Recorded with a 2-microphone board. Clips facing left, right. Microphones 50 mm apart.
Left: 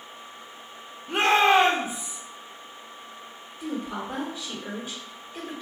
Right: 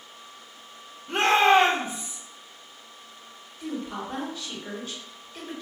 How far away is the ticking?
No ticking in this recording.